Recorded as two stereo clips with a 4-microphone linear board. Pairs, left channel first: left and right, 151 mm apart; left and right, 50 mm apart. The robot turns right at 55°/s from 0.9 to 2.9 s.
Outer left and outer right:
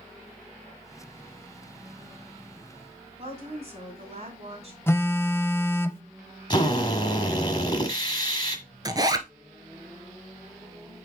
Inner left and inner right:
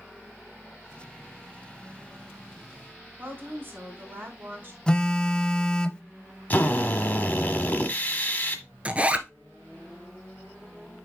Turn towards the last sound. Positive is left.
turn(degrees=-25)  # may be behind; listen again after turning